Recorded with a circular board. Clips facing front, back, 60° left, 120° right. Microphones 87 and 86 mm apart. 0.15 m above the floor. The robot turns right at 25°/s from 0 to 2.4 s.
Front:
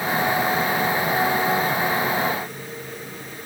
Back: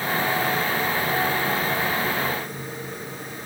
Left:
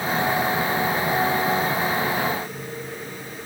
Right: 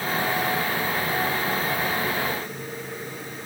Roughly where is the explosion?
I don't hear an explosion.